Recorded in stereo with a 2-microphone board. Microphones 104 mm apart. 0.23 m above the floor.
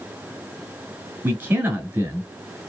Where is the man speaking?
15° right (ahead or behind), 1.4 m.